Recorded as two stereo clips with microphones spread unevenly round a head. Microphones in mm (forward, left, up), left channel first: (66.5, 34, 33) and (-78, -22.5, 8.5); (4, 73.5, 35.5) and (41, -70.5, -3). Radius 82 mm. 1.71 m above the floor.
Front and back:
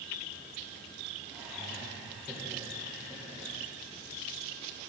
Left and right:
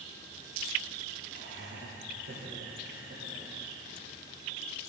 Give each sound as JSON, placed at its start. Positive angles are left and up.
{"t": 1.3, "sound": "laughter", "azimuth_deg": -70, "distance_m": 1.7}